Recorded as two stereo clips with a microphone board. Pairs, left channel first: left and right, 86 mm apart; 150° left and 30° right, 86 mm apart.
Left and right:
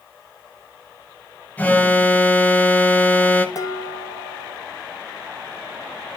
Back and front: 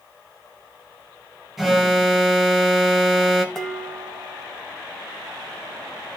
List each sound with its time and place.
1.6 s an alarm: 55° left, 1.2 m
3.5 s dishes clattering: 65° left, 1.3 m